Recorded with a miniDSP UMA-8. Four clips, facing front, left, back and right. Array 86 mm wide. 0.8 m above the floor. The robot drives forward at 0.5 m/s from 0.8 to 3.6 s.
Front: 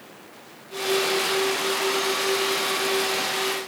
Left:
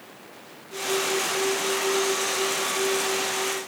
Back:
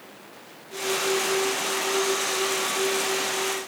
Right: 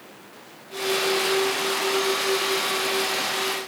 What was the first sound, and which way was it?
Only background noise.